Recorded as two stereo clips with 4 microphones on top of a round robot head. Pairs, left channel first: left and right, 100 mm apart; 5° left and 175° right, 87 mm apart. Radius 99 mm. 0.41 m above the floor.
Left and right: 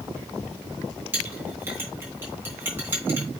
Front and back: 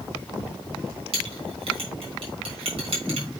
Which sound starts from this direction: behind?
A clink, at 1.1 s.